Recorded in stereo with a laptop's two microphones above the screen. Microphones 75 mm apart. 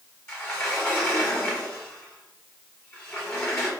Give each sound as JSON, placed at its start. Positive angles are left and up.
{"t": 0.3, "sound": "a sliding door", "side_deg": 30, "distance_m": 3.5}